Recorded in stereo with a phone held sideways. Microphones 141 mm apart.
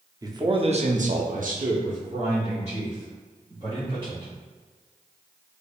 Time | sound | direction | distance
0.2 | a man speaking | 25° right (ahead or behind) | 0.6 m